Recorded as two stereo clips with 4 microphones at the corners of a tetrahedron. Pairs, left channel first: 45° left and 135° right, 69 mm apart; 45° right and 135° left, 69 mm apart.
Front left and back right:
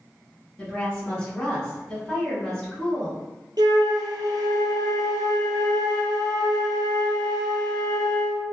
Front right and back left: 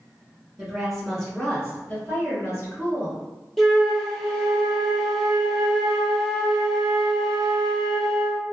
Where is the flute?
130° right, 0.7 m.